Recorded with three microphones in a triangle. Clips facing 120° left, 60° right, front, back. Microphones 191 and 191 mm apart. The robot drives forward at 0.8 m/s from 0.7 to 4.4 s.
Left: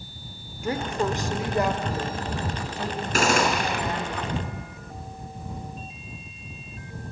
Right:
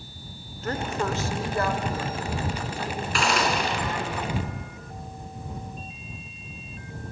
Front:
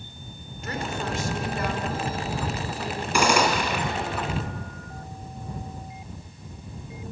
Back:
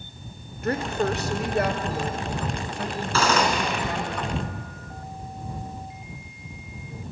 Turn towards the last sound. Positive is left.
turn(degrees=95)